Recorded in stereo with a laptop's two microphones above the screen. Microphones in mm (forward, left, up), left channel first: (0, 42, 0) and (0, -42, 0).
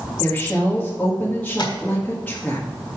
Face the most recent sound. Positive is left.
turn(degrees=60)  # may be behind; listen again after turning